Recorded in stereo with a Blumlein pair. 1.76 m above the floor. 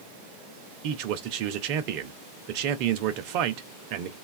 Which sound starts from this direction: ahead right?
A man speaking, at 0.8 s.